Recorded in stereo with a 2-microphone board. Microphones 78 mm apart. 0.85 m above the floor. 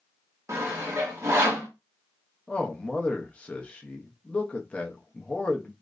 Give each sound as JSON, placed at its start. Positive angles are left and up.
{"t": 0.5, "sound": "sawing", "side_deg": -40, "distance_m": 0.9}
{"t": 2.5, "sound": "a man speaking", "side_deg": 15, "distance_m": 0.6}